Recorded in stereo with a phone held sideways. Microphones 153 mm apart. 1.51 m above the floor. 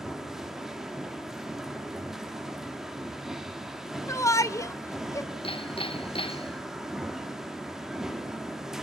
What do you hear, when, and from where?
0.0 s a machine running: 5° right (ahead or behind), 1.7 m
4.1 s a shout: 20° left (ahead or behind), 1.0 m
5.4 s hammering: 35° left (ahead or behind), 0.7 m